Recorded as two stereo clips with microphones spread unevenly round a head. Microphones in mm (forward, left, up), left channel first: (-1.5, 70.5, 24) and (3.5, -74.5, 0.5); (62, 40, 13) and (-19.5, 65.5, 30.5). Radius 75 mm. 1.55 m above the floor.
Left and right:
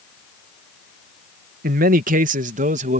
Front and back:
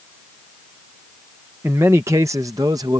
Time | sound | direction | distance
1.6 | a man speaking | 120° right | ?